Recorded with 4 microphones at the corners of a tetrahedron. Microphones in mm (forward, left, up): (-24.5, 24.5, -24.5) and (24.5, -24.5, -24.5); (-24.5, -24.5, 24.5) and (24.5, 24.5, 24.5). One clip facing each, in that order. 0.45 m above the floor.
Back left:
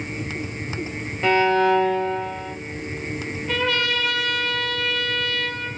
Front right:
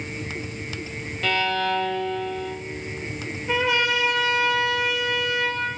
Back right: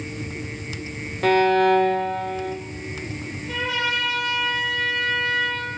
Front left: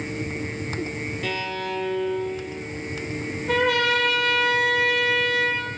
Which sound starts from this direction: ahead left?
A trumpet, at 3.5 s.